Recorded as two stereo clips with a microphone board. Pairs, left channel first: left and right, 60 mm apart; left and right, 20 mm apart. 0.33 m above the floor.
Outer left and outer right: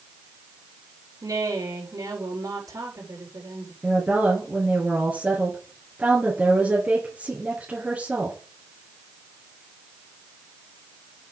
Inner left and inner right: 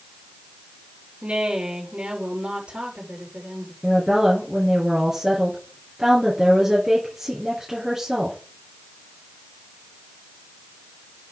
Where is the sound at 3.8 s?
20° right (ahead or behind), 4.5 m.